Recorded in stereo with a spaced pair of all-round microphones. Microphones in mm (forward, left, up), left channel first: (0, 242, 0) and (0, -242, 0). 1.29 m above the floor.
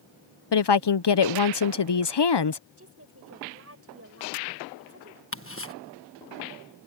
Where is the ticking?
25° left (ahead or behind).